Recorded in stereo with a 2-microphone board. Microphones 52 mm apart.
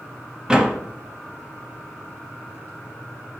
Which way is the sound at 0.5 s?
15° right (ahead or behind).